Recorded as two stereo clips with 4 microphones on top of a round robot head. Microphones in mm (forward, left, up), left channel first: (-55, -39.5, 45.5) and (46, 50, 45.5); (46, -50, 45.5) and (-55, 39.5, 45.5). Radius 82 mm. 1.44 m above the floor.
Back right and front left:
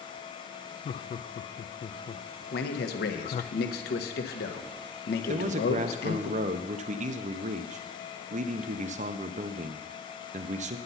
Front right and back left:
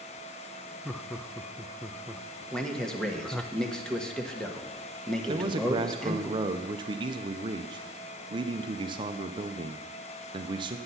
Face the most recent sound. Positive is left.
turn(degrees=80)